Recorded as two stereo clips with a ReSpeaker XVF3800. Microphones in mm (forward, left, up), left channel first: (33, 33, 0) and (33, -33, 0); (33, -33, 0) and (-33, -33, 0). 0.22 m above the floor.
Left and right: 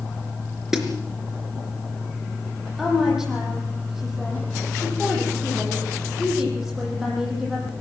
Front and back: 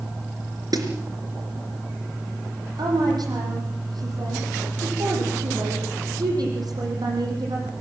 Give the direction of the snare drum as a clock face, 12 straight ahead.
6 o'clock.